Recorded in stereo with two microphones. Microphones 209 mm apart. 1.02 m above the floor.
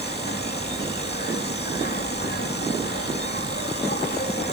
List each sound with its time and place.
0.0 s an insect: 50° left (ahead or behind)